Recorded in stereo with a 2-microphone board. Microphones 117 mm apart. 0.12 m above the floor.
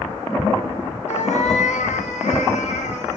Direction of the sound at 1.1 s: 80° left.